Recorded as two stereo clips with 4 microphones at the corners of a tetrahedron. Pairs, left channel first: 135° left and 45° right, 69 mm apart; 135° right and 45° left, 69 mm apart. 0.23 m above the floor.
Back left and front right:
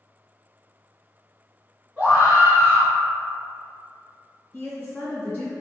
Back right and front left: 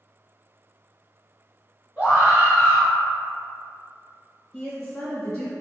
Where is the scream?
Straight ahead, 1.6 m.